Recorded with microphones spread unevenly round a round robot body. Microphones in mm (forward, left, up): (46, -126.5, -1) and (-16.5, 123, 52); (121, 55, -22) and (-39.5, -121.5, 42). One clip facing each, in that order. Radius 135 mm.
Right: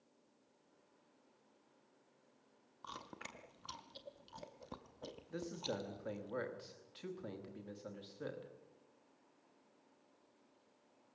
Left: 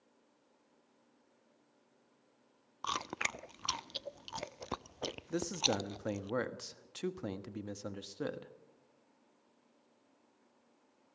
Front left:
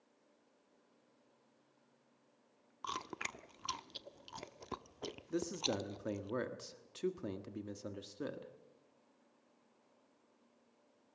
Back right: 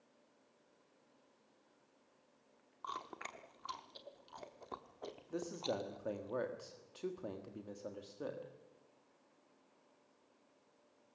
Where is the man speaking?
95° left, 1.3 m.